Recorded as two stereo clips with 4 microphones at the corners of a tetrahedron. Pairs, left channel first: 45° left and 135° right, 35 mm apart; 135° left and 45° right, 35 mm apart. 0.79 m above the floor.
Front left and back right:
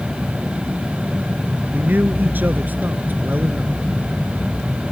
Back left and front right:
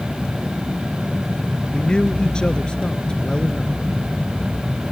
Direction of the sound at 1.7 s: 160° right.